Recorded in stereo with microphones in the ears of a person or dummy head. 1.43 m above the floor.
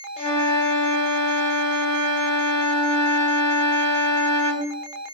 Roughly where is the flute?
Left.